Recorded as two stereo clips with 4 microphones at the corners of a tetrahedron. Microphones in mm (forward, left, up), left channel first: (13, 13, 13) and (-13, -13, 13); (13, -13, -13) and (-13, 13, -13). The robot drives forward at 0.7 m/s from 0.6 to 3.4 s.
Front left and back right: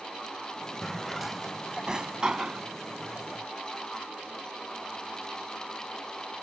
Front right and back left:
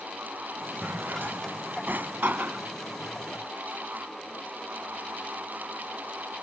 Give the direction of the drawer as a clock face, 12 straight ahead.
8 o'clock.